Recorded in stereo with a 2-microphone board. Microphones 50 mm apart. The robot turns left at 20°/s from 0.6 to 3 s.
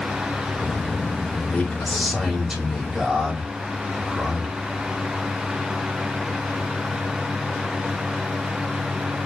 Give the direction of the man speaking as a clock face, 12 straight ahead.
12 o'clock.